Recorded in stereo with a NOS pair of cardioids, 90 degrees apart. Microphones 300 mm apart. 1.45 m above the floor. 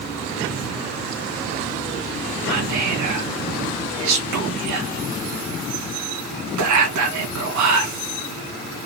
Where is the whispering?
70° right, 2 m.